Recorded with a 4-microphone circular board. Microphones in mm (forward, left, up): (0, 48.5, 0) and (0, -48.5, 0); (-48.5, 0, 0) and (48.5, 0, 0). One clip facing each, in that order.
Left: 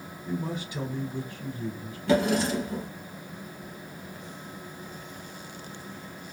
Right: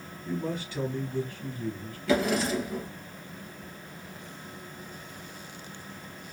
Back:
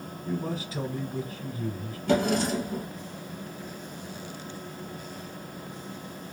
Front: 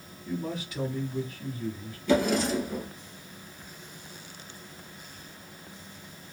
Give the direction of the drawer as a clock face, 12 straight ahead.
7 o'clock.